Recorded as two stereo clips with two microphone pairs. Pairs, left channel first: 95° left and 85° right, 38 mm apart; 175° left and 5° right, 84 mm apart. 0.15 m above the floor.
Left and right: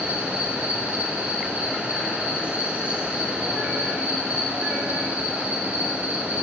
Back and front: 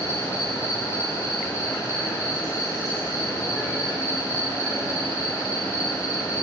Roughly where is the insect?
Behind right.